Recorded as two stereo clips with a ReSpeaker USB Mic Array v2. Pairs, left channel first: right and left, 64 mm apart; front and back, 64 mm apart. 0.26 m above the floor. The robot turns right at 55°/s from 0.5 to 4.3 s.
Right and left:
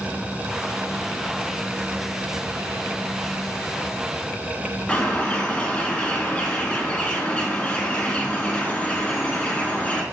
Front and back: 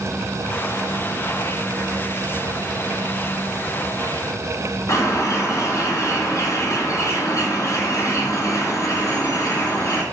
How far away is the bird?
About 3 m.